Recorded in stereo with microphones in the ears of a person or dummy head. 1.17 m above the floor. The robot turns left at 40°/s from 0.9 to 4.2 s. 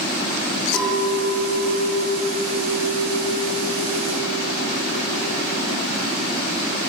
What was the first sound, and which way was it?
A clink, 10° left.